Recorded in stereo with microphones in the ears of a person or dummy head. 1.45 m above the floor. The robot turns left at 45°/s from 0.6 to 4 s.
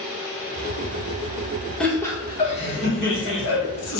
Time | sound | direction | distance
1.8 | laughter | straight behind | 1.0 m